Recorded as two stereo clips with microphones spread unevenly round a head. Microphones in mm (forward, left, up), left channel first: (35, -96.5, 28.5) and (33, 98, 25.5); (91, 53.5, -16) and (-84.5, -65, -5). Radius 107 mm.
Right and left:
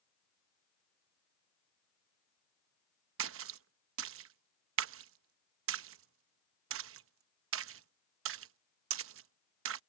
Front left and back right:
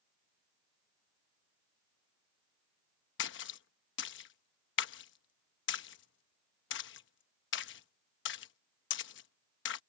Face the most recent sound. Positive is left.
turn(degrees=75)